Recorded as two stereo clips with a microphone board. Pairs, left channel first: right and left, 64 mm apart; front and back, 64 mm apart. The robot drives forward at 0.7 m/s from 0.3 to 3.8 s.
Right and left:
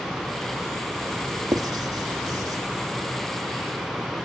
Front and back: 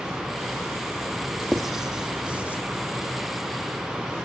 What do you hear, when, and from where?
1.5 s writing: 90° left, 1.8 m; by 2.6 s 110° left, 2.0 m